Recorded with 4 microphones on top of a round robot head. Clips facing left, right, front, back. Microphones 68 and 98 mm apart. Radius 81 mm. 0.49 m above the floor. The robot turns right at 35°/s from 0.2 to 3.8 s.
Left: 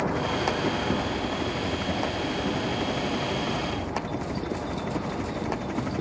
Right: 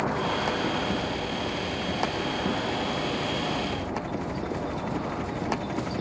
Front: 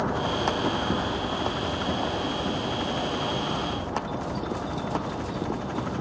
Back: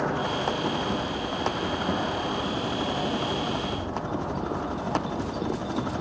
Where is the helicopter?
45° left; by 6.0 s 170° left.